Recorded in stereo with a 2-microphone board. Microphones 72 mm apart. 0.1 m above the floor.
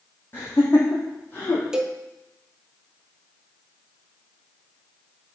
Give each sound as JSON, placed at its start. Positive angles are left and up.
{"t": 0.3, "sound": "laughter", "side_deg": 30, "distance_m": 4.0}
{"t": 1.7, "sound": "a cowbell", "side_deg": -10, "distance_m": 1.0}